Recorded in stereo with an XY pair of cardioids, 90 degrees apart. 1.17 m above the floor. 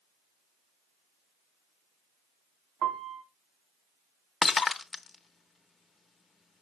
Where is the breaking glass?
40° left, 0.7 m.